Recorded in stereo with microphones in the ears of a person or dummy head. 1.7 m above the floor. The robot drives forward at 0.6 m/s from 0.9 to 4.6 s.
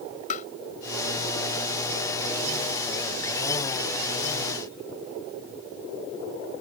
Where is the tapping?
40° left (ahead or behind).